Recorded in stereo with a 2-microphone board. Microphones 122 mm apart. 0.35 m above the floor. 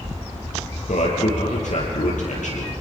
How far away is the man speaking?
About 8 m.